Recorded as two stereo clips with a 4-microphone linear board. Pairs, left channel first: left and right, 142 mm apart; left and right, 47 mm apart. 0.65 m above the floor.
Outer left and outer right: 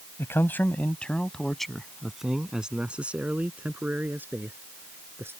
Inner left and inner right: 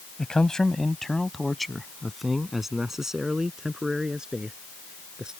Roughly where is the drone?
I don't hear a drone.